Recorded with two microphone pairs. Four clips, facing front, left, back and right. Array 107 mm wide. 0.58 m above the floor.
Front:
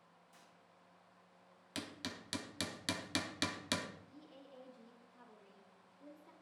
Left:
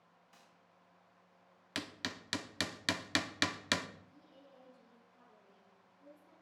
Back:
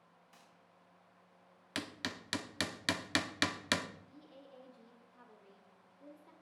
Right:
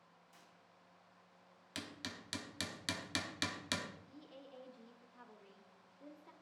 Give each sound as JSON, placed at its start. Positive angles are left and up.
{"t": 0.3, "sound": "a gunshot", "azimuth_deg": 145, "distance_m": 4.0}
{"t": 1.8, "sound": "hammering", "azimuth_deg": 130, "distance_m": 0.8}
{"t": 4.1, "sound": "a woman speaking", "azimuth_deg": -120, "distance_m": 1.7}